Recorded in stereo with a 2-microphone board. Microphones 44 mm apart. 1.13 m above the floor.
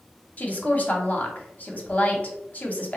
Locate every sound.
0.4 s a woman speaking: 35° left (ahead or behind), 0.8 m